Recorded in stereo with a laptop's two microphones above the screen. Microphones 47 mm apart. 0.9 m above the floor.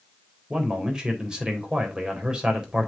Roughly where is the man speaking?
Centre.